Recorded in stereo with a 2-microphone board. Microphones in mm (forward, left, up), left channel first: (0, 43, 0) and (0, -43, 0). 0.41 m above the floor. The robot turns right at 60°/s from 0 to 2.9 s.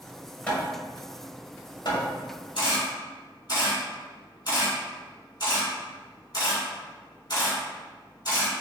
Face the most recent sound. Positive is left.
turn(degrees=55)  # may be behind; listen again after turning